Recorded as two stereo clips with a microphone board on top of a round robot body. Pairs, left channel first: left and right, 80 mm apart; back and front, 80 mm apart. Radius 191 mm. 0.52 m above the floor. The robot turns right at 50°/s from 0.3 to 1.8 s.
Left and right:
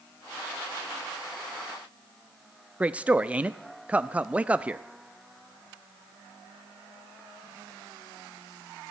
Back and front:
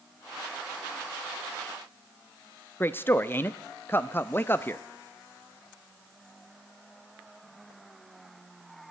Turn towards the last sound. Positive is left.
turn(degrees=-150)